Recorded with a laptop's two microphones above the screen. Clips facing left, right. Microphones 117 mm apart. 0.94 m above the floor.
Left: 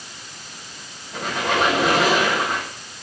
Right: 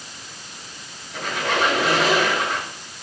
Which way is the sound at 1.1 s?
45° left (ahead or behind).